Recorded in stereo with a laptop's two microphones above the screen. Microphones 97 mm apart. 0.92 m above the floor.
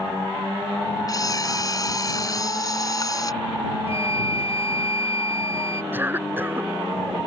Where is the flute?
80° left.